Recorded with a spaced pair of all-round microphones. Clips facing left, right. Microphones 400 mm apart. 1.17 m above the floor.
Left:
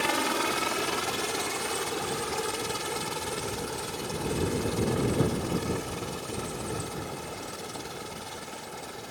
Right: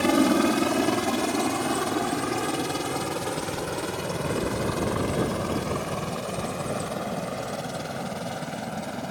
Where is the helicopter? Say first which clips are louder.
Right 11 dB; 60° right (ahead or behind); by 9.1 s 75° right (ahead or behind).